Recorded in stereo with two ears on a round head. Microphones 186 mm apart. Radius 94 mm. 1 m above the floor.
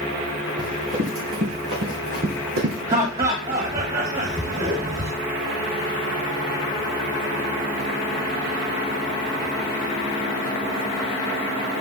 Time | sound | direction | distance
0.6 | running footsteps | 55° right (ahead or behind) | 4.5 m
2.9 | laughter | 30° right (ahead or behind) | 1.4 m